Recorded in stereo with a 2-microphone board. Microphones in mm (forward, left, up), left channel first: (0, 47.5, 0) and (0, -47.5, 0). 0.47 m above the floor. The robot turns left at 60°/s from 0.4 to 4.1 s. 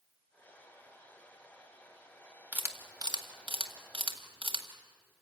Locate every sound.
2.5 s a camera shutter: 20° right (ahead or behind), 1.9 m; by 4.7 s 60° right (ahead or behind), 1.9 m